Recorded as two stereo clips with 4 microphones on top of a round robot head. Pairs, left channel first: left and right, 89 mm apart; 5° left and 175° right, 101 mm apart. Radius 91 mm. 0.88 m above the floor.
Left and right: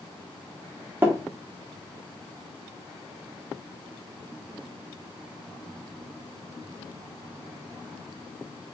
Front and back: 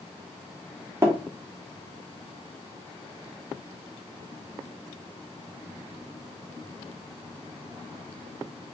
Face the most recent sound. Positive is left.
turn(degrees=-135)